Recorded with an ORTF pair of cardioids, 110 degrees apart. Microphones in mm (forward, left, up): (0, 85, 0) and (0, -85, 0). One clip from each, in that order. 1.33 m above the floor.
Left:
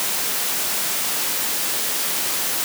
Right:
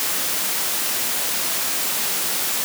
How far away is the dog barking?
No dog barking in this recording.